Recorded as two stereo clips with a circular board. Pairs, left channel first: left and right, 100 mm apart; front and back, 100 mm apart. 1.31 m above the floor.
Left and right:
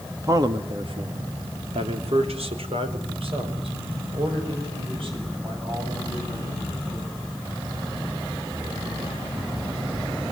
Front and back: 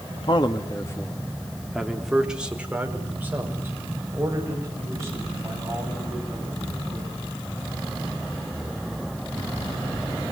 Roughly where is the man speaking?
Ahead right.